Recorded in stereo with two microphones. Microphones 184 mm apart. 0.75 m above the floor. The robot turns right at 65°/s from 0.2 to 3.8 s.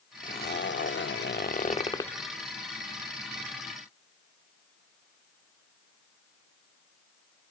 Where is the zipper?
45° left, 0.8 m; by 2.1 s 170° left, 0.8 m.